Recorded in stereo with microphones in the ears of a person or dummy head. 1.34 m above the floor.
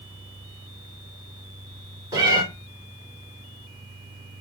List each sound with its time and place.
2.1 s a cat meowing: 25° right (ahead or behind), 2 m